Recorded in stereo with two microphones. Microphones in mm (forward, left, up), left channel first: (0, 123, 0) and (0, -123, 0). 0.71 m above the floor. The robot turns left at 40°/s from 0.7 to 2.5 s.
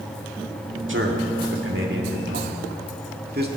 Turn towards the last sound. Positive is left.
turn(degrees=-40)  # may be behind; listen again after turning